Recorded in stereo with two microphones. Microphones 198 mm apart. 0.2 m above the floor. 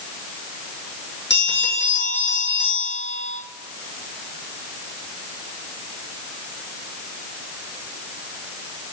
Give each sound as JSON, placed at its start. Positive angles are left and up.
{"t": 1.3, "sound": "a bell", "side_deg": 65, "distance_m": 2.5}